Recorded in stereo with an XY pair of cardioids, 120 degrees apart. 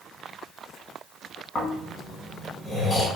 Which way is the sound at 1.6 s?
45° left.